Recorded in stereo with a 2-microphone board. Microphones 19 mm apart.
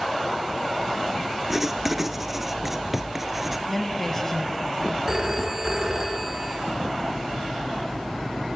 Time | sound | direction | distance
1.5 | writing | 15° right (ahead or behind) | 1.0 m
3.7 | a woman speaking | 15° left (ahead or behind) | 1.8 m
5.1 | a phone ringing | 25° right (ahead or behind) | 2 m